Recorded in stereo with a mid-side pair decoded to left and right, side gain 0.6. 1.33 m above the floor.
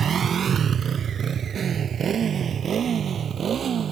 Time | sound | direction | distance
0.0 | a motorcycle | 40° right | ?